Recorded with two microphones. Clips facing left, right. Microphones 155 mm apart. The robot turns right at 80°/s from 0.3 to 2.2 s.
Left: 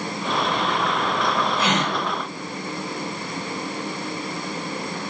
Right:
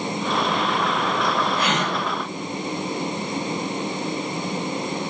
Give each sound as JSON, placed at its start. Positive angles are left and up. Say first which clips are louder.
{"t": 1.6, "sound": "a gasp", "louder": "left 1 dB", "side_deg": 30, "distance_m": 1.5}